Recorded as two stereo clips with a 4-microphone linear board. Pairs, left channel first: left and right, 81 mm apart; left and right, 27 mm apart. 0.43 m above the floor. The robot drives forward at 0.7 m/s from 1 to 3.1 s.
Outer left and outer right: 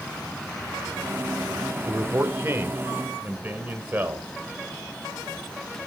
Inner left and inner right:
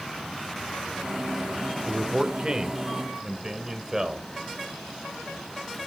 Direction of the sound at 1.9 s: 35° right (ahead or behind).